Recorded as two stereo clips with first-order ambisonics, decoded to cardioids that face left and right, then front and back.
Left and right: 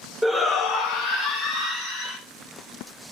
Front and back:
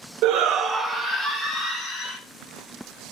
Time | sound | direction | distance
0.2 | a shout | 175° left | 0.9 m